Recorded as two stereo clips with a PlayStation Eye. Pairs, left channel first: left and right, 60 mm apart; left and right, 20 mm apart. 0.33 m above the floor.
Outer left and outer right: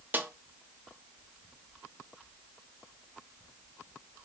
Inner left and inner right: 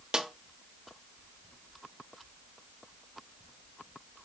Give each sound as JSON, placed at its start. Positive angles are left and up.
{"t": 0.1, "sound": "a snare drum", "side_deg": -30, "distance_m": 0.5}